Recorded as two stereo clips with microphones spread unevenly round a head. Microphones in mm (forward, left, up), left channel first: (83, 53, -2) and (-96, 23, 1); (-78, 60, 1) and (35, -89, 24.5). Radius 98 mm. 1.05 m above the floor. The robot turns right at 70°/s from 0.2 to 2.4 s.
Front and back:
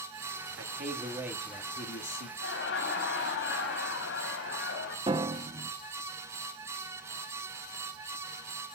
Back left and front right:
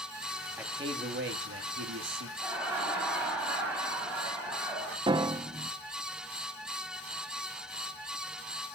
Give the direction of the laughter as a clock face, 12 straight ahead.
11 o'clock.